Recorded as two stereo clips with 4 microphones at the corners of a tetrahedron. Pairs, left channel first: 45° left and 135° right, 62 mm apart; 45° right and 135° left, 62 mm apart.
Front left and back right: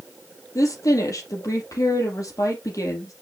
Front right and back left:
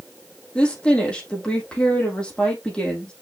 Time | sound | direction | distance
0.6 | a woman speaking | 30° left | 4.5 m